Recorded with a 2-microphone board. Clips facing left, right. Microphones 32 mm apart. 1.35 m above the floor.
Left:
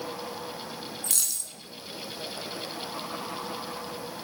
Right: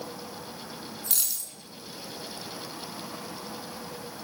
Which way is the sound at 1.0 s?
15° right (ahead or behind).